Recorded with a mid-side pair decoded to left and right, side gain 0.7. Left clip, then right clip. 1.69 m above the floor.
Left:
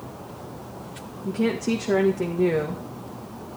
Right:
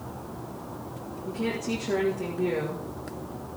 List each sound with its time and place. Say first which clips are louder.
1.2 s a woman speaking: left 6 dB; 35° left, 1.8 m